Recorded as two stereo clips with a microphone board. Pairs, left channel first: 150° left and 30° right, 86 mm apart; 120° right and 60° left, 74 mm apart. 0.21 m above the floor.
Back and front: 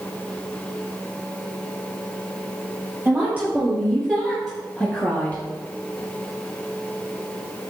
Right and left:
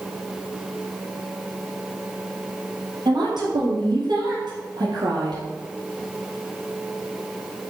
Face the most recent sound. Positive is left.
turn(degrees=70)